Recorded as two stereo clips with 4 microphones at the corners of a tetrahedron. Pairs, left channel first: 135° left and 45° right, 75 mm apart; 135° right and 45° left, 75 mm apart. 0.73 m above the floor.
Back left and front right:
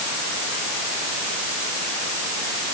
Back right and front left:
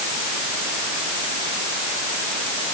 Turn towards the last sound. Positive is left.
No sound to turn to.